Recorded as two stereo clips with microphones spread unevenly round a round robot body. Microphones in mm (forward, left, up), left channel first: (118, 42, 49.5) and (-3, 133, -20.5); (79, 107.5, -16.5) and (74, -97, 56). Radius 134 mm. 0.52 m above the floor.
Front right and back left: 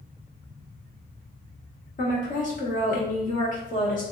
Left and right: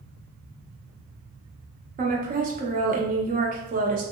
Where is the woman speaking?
55° right, 0.7 m.